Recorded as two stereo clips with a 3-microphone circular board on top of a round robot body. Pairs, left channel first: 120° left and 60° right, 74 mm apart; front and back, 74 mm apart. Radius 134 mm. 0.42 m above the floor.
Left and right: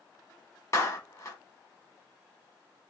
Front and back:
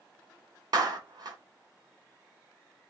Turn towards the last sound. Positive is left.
turn(degrees=165)